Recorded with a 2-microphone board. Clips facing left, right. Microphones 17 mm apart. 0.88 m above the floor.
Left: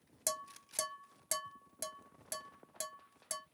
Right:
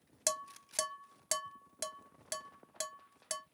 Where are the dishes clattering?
35° right (ahead or behind), 0.6 m.